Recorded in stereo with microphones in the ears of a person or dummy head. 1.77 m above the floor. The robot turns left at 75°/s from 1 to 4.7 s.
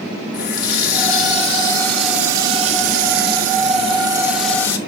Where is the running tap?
80° left, 1.6 m; by 4.8 s 160° left, 1.6 m.